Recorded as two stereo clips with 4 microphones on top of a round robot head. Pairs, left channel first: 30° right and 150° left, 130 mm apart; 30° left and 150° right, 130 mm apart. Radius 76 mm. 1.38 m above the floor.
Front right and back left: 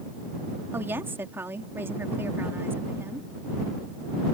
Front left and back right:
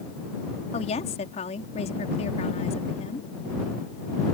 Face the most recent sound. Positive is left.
turn(degrees=75)